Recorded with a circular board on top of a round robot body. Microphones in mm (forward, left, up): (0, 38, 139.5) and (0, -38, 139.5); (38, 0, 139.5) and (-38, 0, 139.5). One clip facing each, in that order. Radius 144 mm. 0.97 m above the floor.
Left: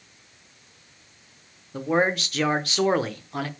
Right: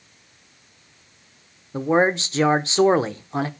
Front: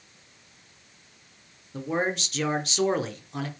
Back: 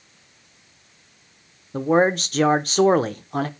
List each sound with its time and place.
1.7 s a man speaking: 150° right, 0.7 m